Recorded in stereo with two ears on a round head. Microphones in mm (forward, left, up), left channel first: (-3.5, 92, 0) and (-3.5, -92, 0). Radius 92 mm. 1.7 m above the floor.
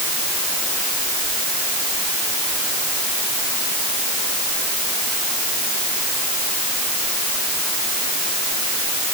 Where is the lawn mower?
I don't hear a lawn mower.